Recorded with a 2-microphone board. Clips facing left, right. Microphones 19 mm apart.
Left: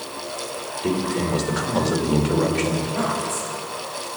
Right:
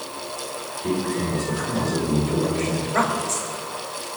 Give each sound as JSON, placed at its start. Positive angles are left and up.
{"t": 0.8, "sound": "a man speaking", "side_deg": 65, "distance_m": 3.0}
{"t": 2.8, "sound": "a woman speaking", "side_deg": -70, "distance_m": 3.5}